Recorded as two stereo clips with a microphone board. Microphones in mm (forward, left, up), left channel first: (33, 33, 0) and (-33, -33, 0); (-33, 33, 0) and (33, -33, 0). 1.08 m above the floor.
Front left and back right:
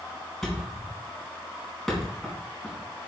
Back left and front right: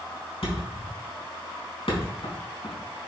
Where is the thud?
130° left, 4 m.